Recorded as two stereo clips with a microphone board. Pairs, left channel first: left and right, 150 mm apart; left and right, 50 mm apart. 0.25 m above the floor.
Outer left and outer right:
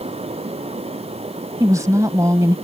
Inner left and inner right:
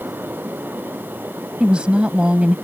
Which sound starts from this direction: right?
A woman speaking, at 1.6 s.